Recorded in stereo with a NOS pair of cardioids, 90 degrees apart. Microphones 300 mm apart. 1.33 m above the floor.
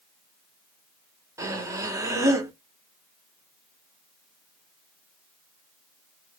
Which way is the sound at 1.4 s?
10° right.